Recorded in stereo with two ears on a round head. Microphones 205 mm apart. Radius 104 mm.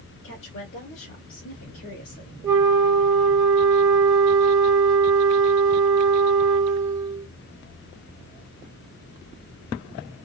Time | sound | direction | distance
0.2 | a woman speaking | 55° left (ahead or behind) | 1.6 m
2.4 | a flute | 20° right (ahead or behind) | 1.9 m